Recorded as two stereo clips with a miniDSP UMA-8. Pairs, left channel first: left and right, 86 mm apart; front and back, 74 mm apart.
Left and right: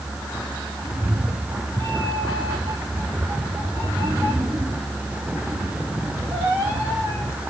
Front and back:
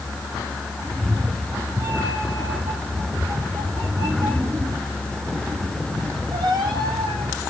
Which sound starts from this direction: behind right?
A cat meowing, at 0.8 s.